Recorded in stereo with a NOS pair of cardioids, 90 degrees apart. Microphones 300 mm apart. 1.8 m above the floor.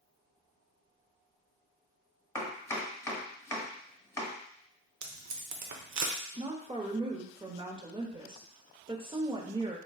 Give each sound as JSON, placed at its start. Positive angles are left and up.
{"t": 2.4, "sound": "chopping", "azimuth_deg": 10, "distance_m": 1.4}
{"t": 5.0, "sound": "tape being pulled", "azimuth_deg": -60, "distance_m": 0.8}
{"t": 6.4, "sound": "a woman speaking", "azimuth_deg": -15, "distance_m": 1.0}